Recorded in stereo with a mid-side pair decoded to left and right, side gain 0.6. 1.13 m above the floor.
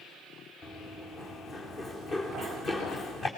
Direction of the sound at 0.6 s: 45° left.